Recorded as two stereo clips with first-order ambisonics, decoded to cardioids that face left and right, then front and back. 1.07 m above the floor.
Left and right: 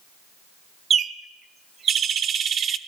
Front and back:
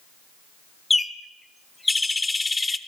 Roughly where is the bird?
Right.